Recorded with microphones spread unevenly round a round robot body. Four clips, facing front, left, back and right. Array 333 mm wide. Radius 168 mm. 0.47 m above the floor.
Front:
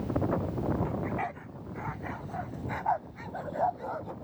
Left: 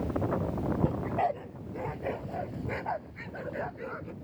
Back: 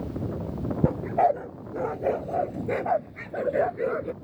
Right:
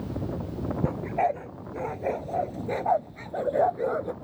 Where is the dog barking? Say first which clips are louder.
Right 5 dB, back 11 dB; 170° right; by 4.1 s 145° right.